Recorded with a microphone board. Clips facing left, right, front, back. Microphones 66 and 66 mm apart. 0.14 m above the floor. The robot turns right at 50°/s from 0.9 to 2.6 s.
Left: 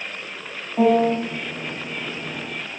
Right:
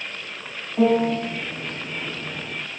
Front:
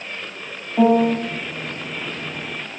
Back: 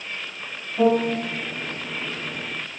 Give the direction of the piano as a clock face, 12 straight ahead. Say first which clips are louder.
Left 2 dB, front 4 dB; 11 o'clock.